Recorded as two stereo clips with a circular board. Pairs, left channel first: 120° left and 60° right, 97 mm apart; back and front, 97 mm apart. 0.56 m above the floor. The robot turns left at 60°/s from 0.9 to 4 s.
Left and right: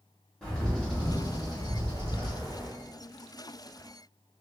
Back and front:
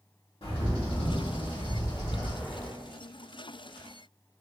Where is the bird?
155° right, 1.1 m; by 2.7 s 95° left, 1.1 m.